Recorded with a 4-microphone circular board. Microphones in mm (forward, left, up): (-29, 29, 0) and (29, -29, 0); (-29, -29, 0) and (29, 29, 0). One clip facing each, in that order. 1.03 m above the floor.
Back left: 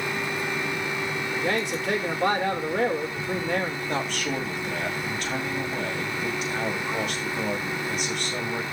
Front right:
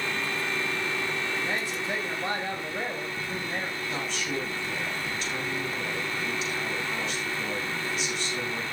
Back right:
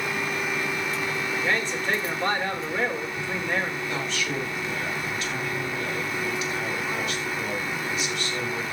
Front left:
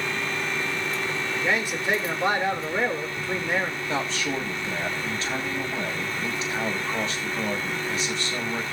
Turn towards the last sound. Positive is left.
turn(degrees=100)